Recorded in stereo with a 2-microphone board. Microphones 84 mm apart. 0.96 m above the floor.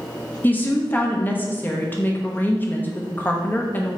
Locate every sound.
0.4 s a woman speaking: 20° left (ahead or behind), 0.6 m